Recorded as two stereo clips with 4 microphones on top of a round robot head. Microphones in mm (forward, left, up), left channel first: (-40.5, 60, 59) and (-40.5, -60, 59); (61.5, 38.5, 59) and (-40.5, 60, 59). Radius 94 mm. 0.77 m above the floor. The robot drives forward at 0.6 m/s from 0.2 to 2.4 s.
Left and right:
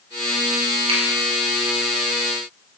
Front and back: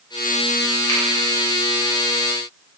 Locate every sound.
0.9 s a finger snap: 70° right, 0.8 m; by 1.0 s 75° right, 0.8 m